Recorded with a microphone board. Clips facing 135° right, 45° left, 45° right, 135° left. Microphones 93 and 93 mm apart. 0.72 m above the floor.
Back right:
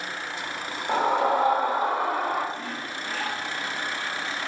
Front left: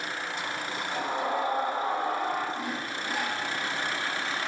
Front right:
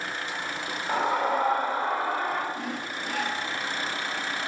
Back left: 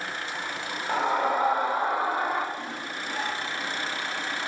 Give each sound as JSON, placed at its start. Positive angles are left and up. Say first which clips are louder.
{"t": 0.9, "sound": "a scream", "louder": "back right 9 dB, even", "azimuth_deg": -135, "distance_m": 2.0}
{"t": 2.5, "sound": "sawing", "louder": "front left 1 dB, front right 2 dB", "azimuth_deg": -30, "distance_m": 2.5}